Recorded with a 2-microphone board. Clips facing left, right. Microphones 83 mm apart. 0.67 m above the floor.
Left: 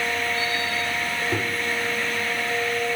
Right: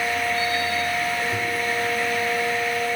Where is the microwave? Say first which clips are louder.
Left 1 dB; 50° left (ahead or behind), 2.0 m.